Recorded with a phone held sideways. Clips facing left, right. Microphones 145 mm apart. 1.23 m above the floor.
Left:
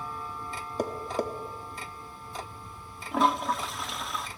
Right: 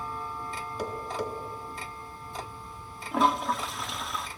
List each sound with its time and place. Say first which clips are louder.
0.8 s tapping: left 3 dB; 45° left (ahead or behind), 1.2 m
3.1 s a toilet flushing: even; centre (ahead or behind), 0.7 m